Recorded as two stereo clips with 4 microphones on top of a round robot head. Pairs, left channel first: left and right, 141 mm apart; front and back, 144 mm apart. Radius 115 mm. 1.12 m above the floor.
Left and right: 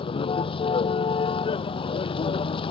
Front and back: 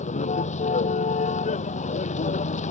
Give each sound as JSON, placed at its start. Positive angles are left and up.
{"t": 0.0, "sound": "a vehicle", "azimuth_deg": 40}